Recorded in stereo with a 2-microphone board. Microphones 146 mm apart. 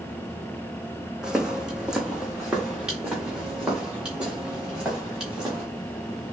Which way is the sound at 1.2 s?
5° right (ahead or behind).